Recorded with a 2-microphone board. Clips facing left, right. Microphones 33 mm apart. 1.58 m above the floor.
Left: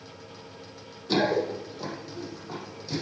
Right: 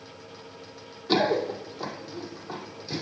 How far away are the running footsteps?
About 1.8 m.